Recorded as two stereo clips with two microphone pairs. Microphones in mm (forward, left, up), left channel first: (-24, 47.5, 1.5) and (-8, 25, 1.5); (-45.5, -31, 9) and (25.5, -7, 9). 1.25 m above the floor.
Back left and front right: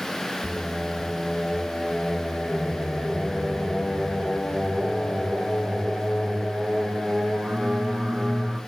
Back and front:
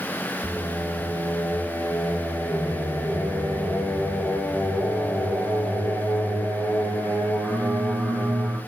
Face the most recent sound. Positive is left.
turn(degrees=-50)